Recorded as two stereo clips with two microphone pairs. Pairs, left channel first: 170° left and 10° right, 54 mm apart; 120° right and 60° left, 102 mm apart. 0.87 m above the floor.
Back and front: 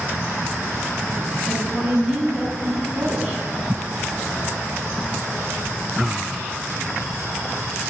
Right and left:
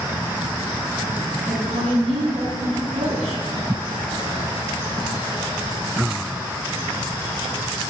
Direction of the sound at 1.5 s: 65° left.